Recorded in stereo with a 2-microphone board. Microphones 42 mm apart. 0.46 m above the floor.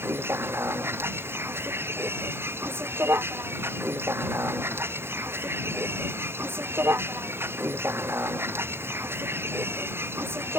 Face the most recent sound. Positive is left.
turn(degrees=-70)  # may be behind; listen again after turning